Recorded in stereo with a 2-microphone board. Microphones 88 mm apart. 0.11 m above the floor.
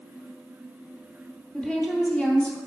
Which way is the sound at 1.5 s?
10° left (ahead or behind).